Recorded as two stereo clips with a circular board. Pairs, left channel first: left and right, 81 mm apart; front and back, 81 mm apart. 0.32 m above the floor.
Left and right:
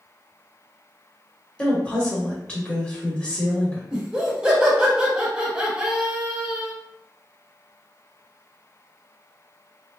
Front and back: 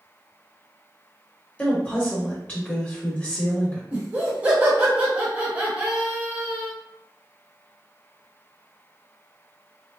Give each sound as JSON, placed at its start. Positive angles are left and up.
{"t": 1.6, "sound": "a woman speaking", "azimuth_deg": 45, "distance_m": 0.9}
{"t": 3.9, "sound": "laughter", "azimuth_deg": -150, "distance_m": 0.9}